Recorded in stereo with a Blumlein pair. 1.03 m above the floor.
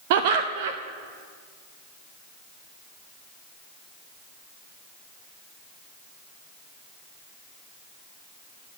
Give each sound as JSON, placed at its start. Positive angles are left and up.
{"t": 0.1, "sound": "laughter", "azimuth_deg": -50, "distance_m": 0.8}